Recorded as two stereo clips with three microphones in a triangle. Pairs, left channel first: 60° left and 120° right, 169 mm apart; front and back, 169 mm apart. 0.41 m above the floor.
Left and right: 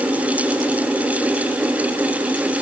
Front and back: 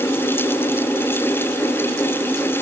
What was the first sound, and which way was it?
Only background noise.